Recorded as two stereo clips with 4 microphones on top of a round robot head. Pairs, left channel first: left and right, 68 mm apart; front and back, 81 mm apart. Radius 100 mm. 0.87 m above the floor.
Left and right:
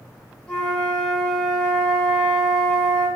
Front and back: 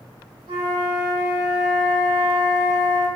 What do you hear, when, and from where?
0.5 s a flute: 165° left, 1.2 m